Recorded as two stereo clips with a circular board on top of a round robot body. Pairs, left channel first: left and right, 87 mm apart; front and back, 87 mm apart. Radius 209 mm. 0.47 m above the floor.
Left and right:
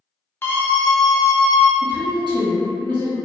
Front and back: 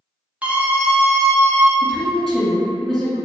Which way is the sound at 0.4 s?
120° left.